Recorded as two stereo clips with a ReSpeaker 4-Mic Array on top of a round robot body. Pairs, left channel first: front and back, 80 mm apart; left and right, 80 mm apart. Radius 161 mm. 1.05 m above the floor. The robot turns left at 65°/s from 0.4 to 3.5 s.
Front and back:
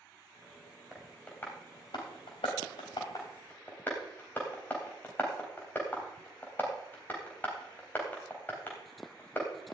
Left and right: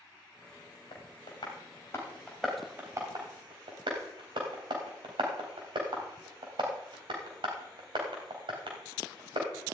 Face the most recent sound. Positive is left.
turn(degrees=-70)